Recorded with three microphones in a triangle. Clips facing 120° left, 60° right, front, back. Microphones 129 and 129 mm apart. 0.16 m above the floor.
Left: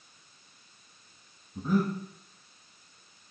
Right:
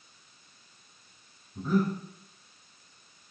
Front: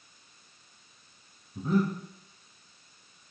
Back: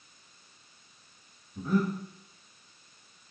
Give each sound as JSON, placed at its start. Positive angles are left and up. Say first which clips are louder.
{"t": 1.6, "sound": "breathing", "louder": "even, front 1 dB", "azimuth_deg": 45, "distance_m": 1.3}